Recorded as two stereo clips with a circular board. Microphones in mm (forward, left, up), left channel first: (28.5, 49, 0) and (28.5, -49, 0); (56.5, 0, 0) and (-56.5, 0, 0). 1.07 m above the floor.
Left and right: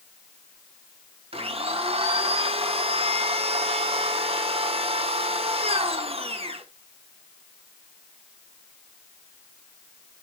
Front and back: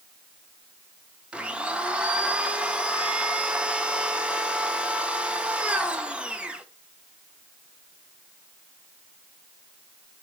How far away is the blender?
About 0.8 m.